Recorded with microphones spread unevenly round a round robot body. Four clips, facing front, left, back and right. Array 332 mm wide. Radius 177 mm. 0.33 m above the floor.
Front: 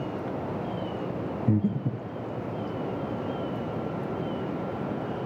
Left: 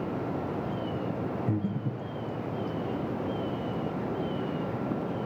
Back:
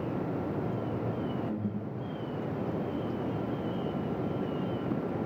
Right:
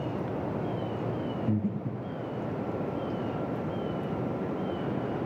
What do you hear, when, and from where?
1.5 s breathing: 5° right, 2.5 m